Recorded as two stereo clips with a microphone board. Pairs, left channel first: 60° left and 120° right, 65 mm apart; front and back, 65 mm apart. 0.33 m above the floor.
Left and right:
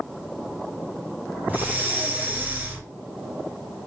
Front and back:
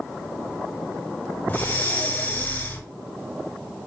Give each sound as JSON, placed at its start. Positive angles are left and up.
{"t": 1.5, "sound": "breathing", "azimuth_deg": -55, "distance_m": 1.0}